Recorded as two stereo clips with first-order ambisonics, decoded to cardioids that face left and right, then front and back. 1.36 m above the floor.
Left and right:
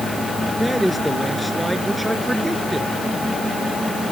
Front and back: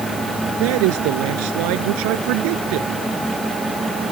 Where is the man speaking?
Straight behind; by 2.9 s 175° right.